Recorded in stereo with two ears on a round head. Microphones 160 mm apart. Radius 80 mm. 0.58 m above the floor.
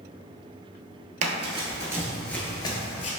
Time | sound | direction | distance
1.2 | running footsteps | 45° right (ahead or behind) | 0.7 m